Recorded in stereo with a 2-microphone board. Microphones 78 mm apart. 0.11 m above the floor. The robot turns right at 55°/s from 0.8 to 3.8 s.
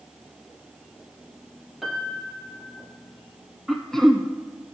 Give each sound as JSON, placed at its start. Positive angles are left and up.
{"t": 1.8, "sound": "a piano", "azimuth_deg": -5, "distance_m": 1.3}
{"t": 3.7, "sound": "throat clearing", "side_deg": 0, "distance_m": 0.7}